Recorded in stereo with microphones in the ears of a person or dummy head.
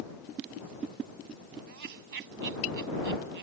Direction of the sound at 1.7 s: 65° right (ahead or behind).